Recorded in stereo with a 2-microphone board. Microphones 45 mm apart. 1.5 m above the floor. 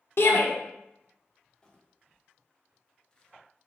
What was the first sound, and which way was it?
A shout, 55° left (ahead or behind).